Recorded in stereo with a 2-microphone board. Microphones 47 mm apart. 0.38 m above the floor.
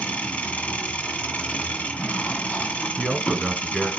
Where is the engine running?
30° left (ahead or behind), 1.5 m.